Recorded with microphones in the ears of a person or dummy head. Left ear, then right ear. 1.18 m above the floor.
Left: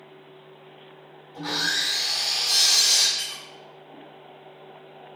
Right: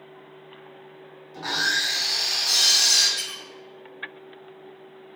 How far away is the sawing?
About 1.4 m.